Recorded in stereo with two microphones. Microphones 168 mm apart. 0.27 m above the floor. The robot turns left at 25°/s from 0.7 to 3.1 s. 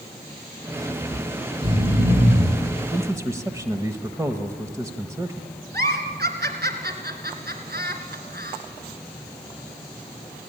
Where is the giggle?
70° right (ahead or behind), 3 m.